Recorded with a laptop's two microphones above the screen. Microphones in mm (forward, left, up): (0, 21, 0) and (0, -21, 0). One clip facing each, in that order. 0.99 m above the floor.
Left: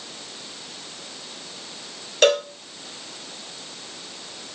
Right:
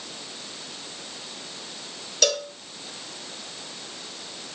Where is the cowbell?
35° left (ahead or behind), 0.9 m.